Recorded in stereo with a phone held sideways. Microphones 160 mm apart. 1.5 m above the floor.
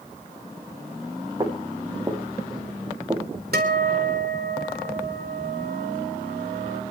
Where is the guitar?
80° right, 3.5 m.